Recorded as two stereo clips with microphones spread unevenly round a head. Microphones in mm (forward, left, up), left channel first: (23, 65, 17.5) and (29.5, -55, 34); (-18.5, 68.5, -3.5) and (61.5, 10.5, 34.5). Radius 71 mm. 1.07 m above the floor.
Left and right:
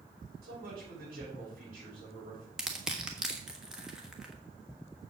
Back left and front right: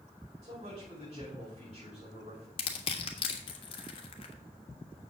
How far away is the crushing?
About 1.3 m.